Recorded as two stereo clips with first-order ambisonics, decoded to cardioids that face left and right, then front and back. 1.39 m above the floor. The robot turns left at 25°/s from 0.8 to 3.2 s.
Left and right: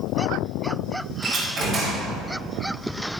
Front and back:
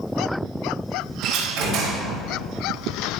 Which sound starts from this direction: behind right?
A door slam, at 1.2 s.